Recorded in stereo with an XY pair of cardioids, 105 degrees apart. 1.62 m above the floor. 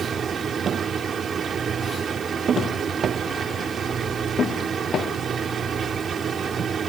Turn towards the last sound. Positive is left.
turn(degrees=-45)